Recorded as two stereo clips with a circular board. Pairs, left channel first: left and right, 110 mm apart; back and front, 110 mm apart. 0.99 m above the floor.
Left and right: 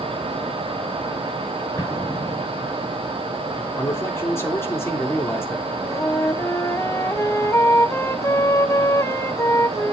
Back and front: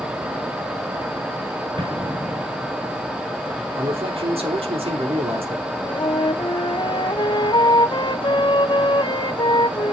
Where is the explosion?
35° left, 3 m.